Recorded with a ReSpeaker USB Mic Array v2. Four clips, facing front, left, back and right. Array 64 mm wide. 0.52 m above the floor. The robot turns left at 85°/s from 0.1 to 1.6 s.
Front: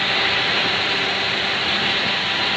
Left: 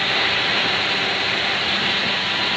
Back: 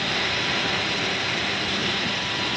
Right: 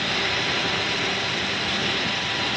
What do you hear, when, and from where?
Only background noise.